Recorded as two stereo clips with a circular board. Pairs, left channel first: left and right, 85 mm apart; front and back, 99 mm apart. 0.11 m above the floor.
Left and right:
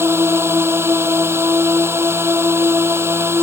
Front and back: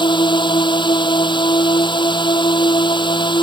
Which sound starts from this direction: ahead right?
A drone, at 0.0 s.